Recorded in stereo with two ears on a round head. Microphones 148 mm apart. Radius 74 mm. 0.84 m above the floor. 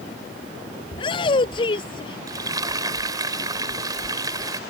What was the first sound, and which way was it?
A shout, 30° left (ahead or behind).